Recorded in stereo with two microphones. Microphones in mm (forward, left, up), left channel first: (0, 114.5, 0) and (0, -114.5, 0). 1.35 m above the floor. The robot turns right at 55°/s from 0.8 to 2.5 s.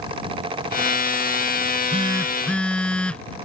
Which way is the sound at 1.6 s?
45° right.